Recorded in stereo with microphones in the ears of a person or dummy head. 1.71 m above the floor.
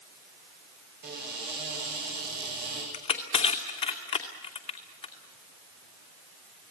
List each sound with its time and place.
1.0 s a cupboard door: 50° right (ahead or behind), 8 m
2.9 s crushing: 30° left (ahead or behind), 2.5 m